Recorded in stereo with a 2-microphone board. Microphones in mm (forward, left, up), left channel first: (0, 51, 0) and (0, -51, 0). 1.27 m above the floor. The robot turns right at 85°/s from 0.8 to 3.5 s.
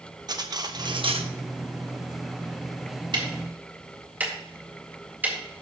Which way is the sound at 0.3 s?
135° right.